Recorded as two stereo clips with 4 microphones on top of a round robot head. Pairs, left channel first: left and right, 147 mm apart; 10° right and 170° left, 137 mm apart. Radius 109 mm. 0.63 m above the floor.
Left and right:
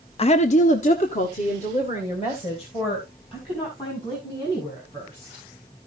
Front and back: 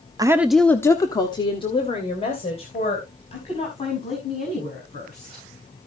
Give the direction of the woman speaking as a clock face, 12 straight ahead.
8 o'clock.